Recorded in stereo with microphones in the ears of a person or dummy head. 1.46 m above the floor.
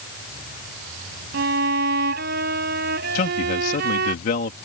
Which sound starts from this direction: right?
A violin, at 1.3 s.